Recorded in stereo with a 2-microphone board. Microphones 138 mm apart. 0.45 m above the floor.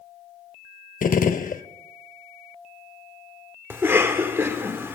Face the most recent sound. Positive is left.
turn(degrees=-15)  # may be behind; listen again after turning